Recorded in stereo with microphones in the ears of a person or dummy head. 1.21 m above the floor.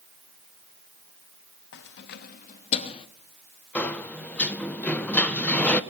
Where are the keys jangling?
65° left (ahead or behind), 0.9 m; by 3.1 s 30° left (ahead or behind), 1.1 m.